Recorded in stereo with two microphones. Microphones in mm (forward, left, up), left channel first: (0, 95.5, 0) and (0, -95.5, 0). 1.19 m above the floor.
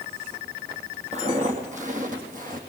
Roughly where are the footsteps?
Right.